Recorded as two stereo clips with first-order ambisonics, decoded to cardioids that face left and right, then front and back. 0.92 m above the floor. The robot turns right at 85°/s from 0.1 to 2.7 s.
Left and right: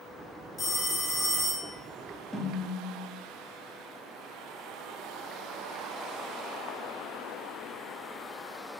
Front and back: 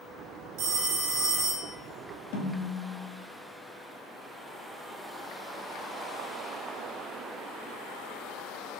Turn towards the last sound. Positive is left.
turn(degrees=25)